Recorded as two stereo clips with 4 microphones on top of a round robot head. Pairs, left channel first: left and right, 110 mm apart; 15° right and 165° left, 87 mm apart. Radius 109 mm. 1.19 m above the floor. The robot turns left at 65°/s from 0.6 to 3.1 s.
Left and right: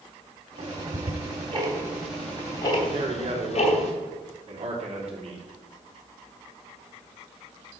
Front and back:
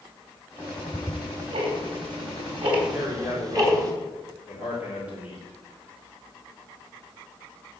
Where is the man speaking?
105° right, 4 m; by 5.4 s 115° right, 4 m.